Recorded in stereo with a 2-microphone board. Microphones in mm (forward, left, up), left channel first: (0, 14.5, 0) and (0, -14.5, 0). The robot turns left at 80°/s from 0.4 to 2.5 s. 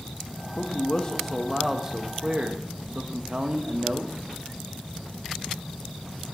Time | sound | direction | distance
0.6 | a man speaking | 80° left | 0.9 m